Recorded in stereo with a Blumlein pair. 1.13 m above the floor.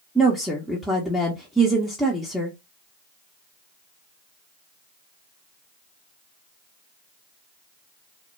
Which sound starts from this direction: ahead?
A woman speaking, at 0.1 s.